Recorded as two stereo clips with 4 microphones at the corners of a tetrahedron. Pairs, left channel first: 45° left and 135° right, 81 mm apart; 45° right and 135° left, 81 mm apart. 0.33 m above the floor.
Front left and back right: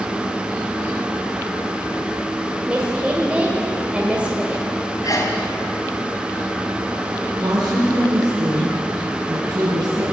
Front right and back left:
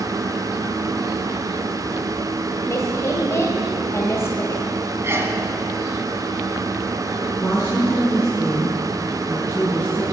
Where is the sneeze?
80° left, 2.5 m.